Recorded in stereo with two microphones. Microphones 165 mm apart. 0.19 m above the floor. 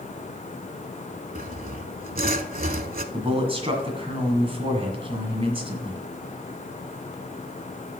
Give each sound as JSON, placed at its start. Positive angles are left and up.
{"t": 1.4, "sound": "sawing", "side_deg": -60, "distance_m": 0.5}
{"t": 3.1, "sound": "a man speaking", "side_deg": -35, "distance_m": 1.8}